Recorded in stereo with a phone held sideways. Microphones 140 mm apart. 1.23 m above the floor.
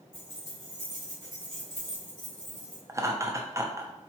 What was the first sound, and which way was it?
Keys jangling, 45° left (ahead or behind).